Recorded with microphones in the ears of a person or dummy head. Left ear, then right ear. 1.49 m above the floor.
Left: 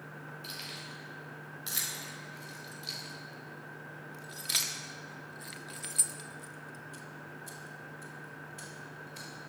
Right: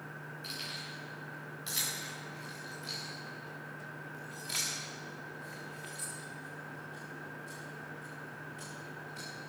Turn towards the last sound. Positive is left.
turn(degrees=20)  # may be behind; listen again after turning